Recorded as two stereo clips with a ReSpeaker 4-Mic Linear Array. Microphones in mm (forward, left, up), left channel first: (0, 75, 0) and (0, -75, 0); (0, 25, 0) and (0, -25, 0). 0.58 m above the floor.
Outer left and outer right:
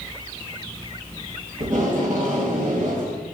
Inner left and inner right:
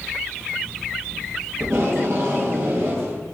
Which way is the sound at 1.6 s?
60° right (ahead or behind).